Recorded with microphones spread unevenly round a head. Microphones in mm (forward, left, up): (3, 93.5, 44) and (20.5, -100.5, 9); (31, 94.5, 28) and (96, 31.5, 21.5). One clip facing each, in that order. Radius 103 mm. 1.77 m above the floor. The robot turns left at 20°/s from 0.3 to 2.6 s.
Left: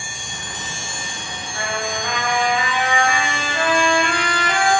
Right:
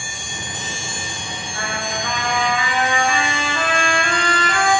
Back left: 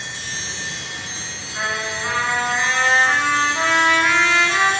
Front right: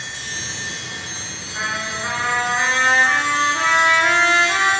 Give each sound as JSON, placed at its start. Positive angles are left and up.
{"t": 1.5, "sound": "a trumpet", "azimuth_deg": 30, "distance_m": 1.1}